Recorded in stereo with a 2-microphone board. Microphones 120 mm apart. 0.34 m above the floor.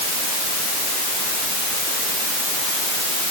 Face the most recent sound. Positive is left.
No sound to turn to.